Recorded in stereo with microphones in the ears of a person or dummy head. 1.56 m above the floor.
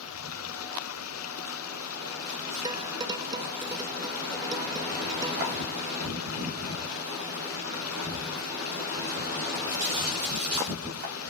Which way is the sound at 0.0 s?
85° left.